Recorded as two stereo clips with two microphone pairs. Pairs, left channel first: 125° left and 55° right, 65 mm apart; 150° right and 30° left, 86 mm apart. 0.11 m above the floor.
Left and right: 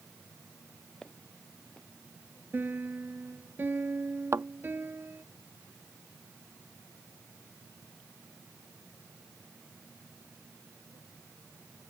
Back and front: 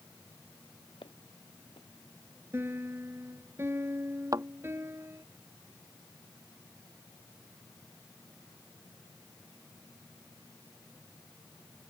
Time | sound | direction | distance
1.0 | footsteps | 155° right | ?
2.5 | a piano | 15° right | ?
4.3 | a thud | 15° right | ?